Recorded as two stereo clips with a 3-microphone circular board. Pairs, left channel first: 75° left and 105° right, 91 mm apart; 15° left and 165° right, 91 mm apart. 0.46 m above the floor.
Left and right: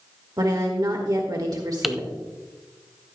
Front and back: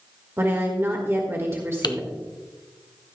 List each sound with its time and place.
0.4 s a woman speaking: 115° right, 1.4 m
1.8 s typing on a keyboard: 15° right, 0.7 m